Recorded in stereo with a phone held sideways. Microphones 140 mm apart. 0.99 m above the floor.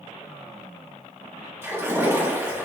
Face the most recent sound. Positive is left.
turn(degrees=-20)  # may be behind; listen again after turning